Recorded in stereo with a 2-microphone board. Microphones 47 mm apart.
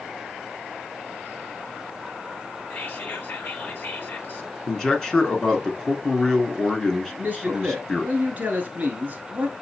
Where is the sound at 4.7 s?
15° left (ahead or behind), 1.2 m.